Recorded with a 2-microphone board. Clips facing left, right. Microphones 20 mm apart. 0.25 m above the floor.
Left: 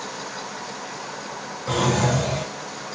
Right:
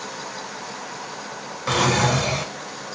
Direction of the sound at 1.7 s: 65° right (ahead or behind).